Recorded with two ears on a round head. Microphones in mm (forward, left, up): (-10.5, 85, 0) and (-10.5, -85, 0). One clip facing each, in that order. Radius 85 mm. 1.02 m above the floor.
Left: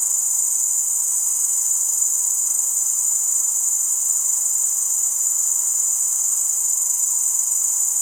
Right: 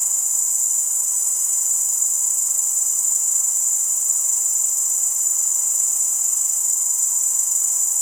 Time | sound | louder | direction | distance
0.0 | an insect | even | 5° left (ahead or behind) | 1.2 m